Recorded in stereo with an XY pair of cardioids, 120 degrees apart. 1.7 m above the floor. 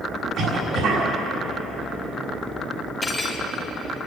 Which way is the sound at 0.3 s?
60° right.